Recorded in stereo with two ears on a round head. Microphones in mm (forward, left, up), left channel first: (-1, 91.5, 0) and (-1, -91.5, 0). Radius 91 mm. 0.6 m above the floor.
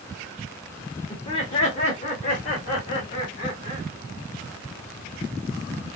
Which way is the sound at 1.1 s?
25° left (ahead or behind).